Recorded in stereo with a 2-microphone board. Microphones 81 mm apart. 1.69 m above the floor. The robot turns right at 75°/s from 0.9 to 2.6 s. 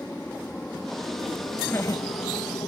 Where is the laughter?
20° left (ahead or behind); by 2.7 s 90° left.